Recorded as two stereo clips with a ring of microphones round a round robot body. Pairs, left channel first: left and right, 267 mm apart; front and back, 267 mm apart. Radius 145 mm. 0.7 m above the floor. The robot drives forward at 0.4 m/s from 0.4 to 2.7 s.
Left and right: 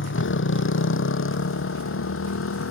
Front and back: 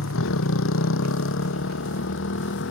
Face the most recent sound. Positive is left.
turn(degrees=50)